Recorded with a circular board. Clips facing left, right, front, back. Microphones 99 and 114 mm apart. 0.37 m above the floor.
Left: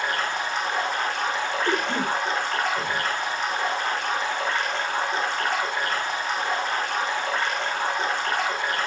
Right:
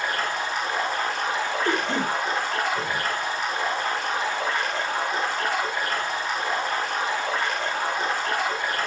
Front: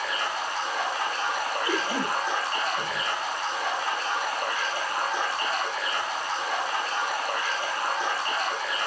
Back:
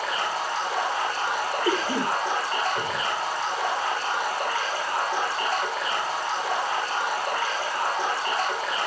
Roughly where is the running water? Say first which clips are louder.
Even, back 2 dB; behind.